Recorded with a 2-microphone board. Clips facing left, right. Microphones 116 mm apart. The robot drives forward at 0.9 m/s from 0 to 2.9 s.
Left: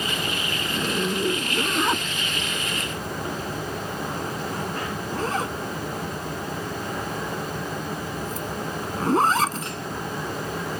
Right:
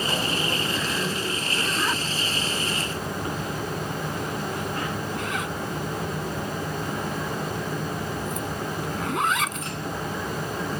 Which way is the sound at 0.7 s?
25° left (ahead or behind).